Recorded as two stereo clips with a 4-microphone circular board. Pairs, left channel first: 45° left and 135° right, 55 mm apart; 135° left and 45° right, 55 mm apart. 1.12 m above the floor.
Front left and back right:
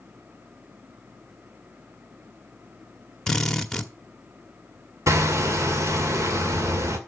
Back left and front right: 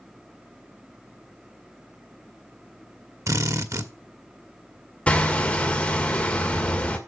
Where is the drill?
30° right, 1.2 m.